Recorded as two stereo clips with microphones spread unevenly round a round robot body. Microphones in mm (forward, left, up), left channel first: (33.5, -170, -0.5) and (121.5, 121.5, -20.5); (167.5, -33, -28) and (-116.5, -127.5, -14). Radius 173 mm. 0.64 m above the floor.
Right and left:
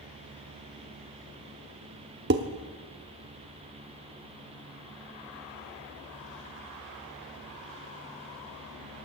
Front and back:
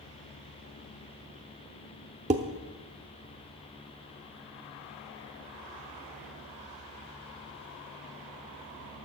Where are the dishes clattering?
125° left, 0.6 m.